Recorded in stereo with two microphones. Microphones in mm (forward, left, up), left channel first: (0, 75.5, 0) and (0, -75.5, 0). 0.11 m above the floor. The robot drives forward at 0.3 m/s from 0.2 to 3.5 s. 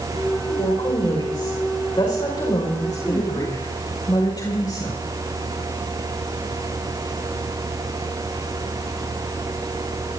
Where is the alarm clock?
I don't hear an alarm clock.